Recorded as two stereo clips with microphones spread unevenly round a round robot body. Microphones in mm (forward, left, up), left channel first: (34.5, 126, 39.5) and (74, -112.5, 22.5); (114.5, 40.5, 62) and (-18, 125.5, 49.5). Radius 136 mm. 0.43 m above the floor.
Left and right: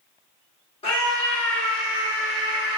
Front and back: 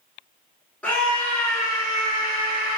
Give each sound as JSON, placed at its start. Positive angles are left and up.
{"t": 0.8, "sound": "a scream", "azimuth_deg": 50, "distance_m": 1.3}